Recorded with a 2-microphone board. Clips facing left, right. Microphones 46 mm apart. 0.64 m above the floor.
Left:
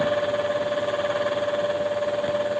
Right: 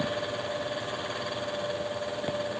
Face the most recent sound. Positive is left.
No sound to turn to.